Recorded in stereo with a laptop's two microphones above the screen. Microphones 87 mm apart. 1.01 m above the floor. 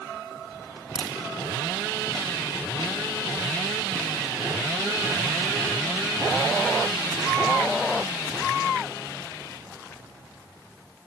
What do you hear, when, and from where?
0.9 s a crack: 75° right (ahead or behind), 4.5 m